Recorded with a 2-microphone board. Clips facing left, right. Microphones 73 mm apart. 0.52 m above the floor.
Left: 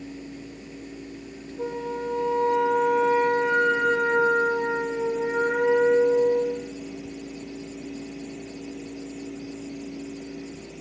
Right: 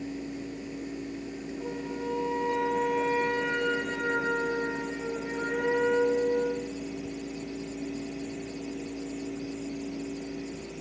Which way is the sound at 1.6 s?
50° left (ahead or behind).